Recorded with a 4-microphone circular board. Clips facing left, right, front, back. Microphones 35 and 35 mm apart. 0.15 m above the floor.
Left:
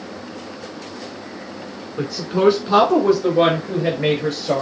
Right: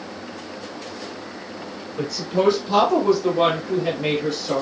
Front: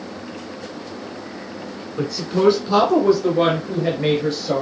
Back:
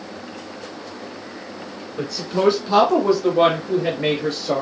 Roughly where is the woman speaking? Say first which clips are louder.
Left 3 dB, front 2 dB; left.